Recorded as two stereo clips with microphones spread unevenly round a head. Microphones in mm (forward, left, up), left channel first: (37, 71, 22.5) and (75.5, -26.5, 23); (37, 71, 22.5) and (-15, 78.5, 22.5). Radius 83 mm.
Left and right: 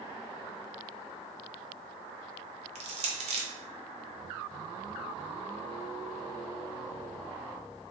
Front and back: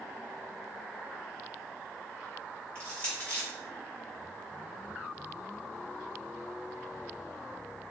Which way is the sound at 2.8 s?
80° right.